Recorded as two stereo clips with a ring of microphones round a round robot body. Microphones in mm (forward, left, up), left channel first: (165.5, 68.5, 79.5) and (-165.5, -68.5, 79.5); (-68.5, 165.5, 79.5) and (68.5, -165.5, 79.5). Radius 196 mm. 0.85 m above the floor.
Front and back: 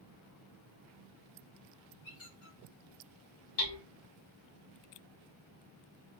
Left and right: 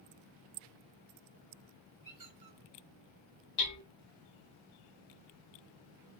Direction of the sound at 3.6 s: 65° left.